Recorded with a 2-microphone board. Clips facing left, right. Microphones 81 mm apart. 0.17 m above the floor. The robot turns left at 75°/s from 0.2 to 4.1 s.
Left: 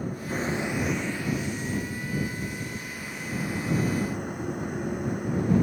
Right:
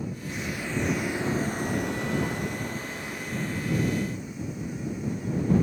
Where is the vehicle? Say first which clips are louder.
Left 3 dB; 50° left; by 5.6 s 120° left.